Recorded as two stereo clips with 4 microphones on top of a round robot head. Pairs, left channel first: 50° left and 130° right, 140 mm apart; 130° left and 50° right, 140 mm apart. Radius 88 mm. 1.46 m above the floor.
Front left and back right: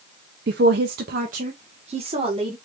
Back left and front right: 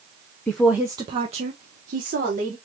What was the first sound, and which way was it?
A woman speaking, 150° right.